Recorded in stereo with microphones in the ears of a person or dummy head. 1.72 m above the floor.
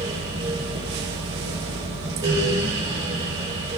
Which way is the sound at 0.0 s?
25° right (ahead or behind).